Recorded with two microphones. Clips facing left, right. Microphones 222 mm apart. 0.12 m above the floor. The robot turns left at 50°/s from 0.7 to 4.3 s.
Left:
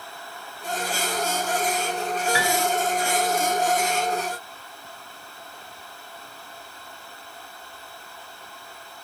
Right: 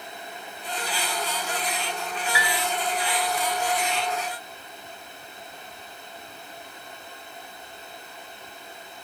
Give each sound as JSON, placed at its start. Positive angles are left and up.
{"t": 2.3, "sound": "a piano", "side_deg": 40, "distance_m": 1.6}